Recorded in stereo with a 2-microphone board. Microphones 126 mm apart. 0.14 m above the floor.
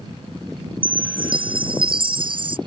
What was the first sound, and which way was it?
A chime, 40° right (ahead or behind).